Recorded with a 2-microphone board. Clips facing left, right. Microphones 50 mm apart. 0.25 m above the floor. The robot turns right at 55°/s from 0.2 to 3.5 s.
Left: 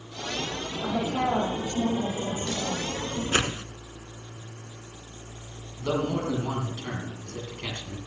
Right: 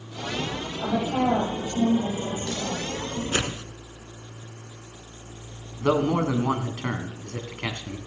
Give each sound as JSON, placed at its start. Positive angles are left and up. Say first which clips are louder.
{"t": 0.8, "sound": "a woman speaking", "louder": "right 3 dB", "azimuth_deg": -65, "distance_m": 8.0}
{"t": 3.3, "sound": "a whoosh", "louder": "left 3 dB", "side_deg": 30, "distance_m": 0.7}
{"t": 5.8, "sound": "a man speaking", "louder": "right 5 dB", "side_deg": -55, "distance_m": 1.8}